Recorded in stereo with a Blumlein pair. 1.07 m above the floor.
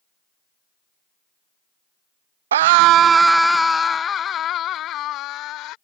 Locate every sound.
2.5 s a scream: 65° right; by 5.8 s 35° left